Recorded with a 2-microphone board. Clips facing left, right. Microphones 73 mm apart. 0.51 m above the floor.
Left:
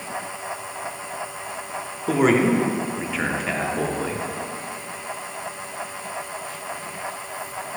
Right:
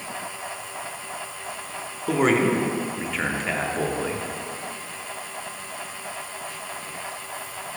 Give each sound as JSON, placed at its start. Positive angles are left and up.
{"t": 2.1, "sound": "a man speaking", "side_deg": 0, "distance_m": 0.7}